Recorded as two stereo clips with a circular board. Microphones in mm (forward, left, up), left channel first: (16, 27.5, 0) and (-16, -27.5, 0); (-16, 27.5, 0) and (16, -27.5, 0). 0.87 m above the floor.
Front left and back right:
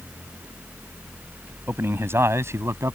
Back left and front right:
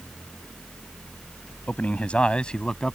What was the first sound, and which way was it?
A man speaking, 170° right.